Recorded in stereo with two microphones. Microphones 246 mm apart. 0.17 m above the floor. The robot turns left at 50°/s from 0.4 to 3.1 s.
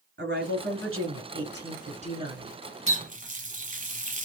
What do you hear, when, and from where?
0.2 s a woman speaking: 65° right, 1.9 m; by 2.5 s 170° right, 1.9 m
2.9 s a running tap: 25° right (ahead or behind), 1.0 m; by 4.3 s 30° right (ahead or behind), 1.0 m